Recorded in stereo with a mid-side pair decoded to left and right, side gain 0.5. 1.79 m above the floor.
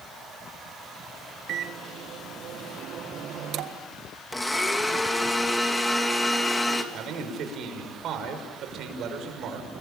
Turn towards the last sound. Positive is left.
turn(degrees=-65)